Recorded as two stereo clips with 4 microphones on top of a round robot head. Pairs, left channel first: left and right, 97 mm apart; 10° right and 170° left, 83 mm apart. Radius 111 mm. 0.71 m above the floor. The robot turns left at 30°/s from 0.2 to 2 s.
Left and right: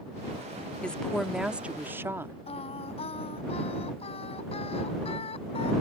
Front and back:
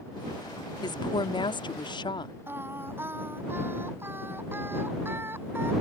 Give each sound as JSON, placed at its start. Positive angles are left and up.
{"t": 0.8, "sound": "a woman speaking", "azimuth_deg": 10}
{"t": 2.5, "sound": "singing", "azimuth_deg": 105}